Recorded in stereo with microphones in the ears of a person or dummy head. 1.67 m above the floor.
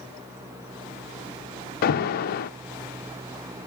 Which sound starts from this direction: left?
An alarm, at 1.8 s.